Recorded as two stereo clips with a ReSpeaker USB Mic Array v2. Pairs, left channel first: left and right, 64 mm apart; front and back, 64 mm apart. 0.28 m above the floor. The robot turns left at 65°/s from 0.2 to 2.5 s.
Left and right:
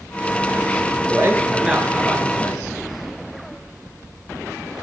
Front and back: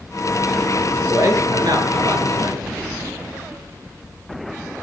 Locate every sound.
1.1 s a man speaking: 135° right, 4 m; by 2.6 s 135° left, 4 m